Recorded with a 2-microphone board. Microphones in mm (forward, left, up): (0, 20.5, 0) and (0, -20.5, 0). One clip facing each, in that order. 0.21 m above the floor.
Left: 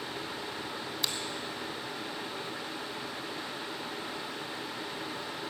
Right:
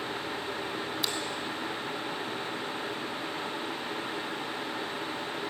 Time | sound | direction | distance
1.0 | a finger snap | 5° right (ahead or behind) | 1.1 m